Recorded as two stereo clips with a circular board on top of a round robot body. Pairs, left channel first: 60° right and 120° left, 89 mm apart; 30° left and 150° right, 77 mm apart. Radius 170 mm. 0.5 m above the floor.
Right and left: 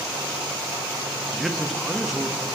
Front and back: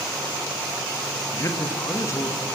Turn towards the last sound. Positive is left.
turn(degrees=35)